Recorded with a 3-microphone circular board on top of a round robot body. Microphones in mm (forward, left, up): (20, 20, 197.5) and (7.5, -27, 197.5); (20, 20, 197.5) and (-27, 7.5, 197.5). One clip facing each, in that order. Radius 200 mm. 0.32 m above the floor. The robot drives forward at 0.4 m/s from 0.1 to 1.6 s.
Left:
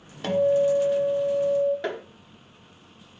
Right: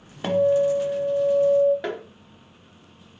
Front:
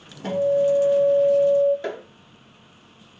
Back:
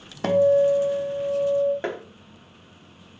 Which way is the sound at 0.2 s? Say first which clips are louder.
Right 1 dB, back 2 dB; straight behind.